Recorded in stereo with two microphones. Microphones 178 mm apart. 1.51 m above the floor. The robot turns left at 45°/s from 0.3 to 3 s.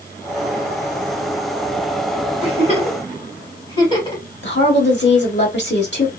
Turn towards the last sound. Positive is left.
turn(degrees=90)